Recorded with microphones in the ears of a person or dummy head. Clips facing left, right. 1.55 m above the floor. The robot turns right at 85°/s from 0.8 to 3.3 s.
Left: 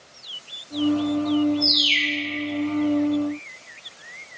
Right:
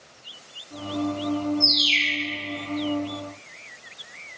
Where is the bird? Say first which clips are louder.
Left 2 dB; 10° left, 0.5 m; by 2.2 s 60° left, 0.5 m.